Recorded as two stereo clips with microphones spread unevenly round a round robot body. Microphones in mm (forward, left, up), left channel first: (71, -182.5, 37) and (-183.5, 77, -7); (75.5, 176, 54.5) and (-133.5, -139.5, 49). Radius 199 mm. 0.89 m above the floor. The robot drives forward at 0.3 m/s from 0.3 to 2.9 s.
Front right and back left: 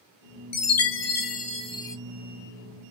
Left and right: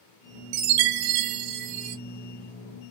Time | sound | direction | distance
0.5 | a chime | 95° right | 0.6 m